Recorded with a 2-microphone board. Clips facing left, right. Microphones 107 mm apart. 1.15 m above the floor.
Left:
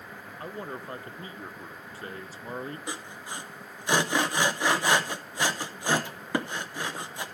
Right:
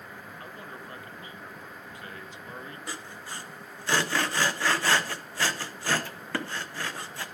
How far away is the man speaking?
About 0.5 m.